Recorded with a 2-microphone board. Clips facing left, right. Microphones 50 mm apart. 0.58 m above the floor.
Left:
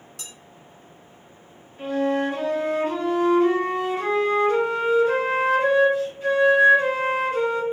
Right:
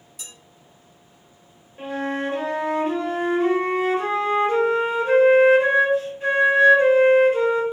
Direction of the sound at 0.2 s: 65° left (ahead or behind).